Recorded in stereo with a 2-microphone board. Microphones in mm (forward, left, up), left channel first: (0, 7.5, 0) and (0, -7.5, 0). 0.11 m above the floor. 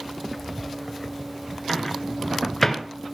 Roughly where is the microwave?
Centre.